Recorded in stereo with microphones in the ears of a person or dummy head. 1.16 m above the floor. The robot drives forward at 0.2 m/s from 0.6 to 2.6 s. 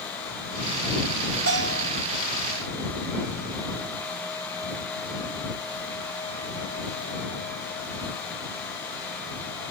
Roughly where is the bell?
Right.